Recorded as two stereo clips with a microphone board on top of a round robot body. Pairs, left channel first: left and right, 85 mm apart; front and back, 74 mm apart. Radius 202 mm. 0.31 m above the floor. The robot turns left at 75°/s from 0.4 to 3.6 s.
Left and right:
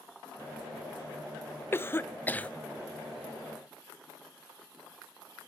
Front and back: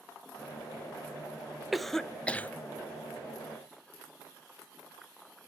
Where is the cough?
95° left, 0.9 m; by 2.5 s 35° left, 0.9 m.